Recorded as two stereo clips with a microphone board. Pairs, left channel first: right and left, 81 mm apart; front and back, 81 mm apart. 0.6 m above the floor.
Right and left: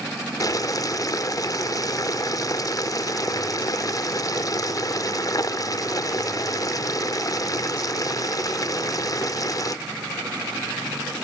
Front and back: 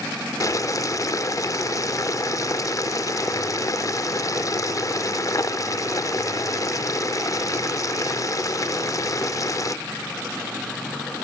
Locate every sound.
0.4 s boiling: 45° right, 0.5 m